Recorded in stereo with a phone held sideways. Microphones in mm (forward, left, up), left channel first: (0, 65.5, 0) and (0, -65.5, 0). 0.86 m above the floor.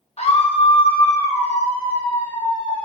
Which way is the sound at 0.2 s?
50° left (ahead or behind).